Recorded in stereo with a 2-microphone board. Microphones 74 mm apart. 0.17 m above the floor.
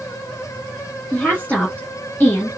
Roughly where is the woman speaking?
Left.